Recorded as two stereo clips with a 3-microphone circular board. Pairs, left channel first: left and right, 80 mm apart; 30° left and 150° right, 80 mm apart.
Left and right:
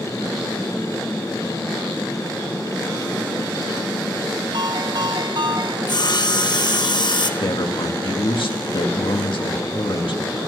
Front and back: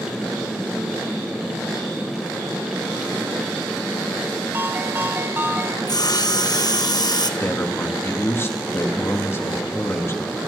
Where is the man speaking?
90° left, 3.5 m.